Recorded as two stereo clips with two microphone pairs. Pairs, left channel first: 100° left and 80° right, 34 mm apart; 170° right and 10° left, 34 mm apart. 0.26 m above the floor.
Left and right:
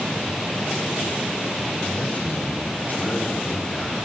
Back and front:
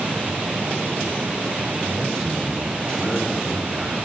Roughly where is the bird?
No bird in this recording.